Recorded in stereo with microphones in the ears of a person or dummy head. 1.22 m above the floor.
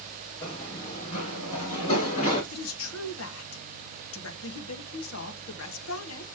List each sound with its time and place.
0.4 s running footsteps: 35° left (ahead or behind), 4 m; by 2.4 s 40° left (ahead or behind), 5 m
2.5 s a woman speaking: 80° left, 1.3 m